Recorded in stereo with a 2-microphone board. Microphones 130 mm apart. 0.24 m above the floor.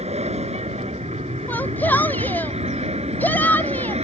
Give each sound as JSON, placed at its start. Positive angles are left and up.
{"t": 0.0, "sound": "an aircraft", "side_deg": -55}
{"t": 1.5, "sound": "a shout", "side_deg": 15}